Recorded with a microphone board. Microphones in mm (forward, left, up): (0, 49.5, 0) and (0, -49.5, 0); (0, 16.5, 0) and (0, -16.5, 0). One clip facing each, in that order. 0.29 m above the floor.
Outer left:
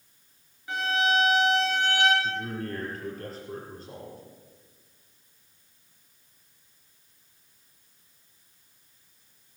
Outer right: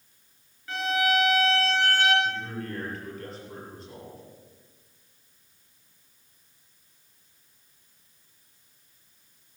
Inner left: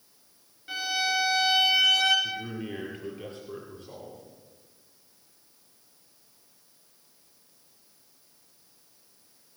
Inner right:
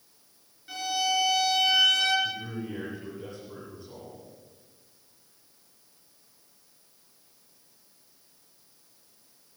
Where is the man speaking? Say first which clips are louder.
Even, even; 40° left (ahead or behind), 5.5 m.